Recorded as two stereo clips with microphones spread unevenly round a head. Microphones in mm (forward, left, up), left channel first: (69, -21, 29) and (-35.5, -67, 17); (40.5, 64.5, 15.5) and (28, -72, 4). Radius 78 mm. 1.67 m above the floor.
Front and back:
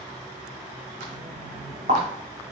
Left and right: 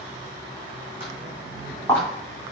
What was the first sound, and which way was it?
Footsteps, 175° right.